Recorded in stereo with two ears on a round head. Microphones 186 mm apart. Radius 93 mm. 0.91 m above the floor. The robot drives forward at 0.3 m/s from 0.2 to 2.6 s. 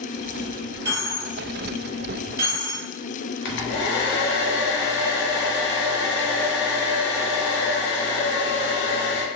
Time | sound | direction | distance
0.8 | a dropped coin | 15° right (ahead or behind) | 1.2 m
3.5 | a hair dryer | 55° left (ahead or behind) | 0.5 m